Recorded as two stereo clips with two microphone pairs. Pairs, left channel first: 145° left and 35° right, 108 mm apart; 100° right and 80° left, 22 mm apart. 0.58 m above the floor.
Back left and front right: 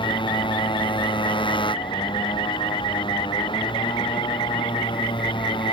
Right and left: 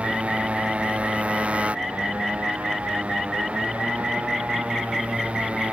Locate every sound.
0.0 s a motorcycle: 105° left